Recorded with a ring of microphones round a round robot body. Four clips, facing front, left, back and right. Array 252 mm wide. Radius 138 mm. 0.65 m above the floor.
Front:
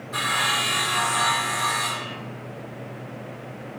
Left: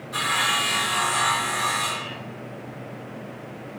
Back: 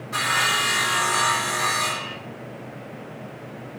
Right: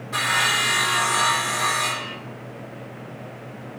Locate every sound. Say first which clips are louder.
0.1 s sawing: right 2 dB, back 2 dB; 140° right, 2.5 m